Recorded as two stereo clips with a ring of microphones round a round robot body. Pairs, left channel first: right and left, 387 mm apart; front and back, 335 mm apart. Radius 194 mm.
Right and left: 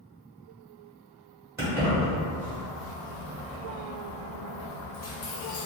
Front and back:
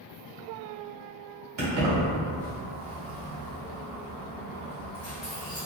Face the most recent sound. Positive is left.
turn(degrees=-70)